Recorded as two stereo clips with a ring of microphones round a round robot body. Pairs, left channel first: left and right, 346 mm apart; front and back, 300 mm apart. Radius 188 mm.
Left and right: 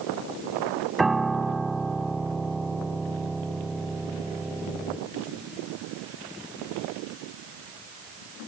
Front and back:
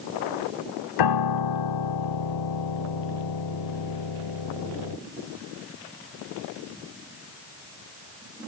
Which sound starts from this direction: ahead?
A piano, at 1.0 s.